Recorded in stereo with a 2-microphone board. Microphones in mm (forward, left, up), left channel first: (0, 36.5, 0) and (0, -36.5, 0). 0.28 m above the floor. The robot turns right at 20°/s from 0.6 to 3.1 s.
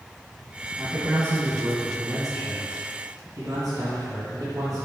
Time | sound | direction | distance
0.8 | a man speaking | 115° right | 2 m